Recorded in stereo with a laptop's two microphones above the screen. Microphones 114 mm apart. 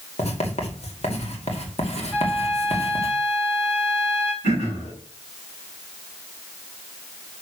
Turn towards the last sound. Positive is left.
turn(degrees=85)